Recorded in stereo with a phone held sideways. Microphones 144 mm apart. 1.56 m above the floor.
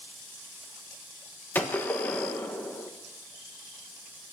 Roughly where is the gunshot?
Centre.